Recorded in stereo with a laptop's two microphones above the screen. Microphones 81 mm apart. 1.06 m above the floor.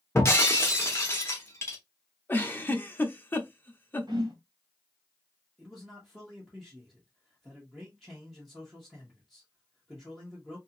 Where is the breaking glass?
35° left (ahead or behind), 0.9 m.